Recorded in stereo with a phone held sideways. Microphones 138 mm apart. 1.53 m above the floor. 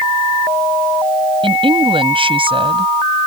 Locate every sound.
1.4 s a woman speaking: 40° right (ahead or behind)